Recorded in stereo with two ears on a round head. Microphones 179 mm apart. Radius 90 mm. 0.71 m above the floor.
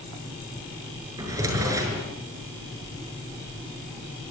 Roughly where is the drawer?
Centre.